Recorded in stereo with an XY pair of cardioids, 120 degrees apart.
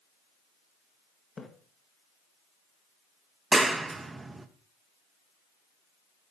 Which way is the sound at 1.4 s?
25° left.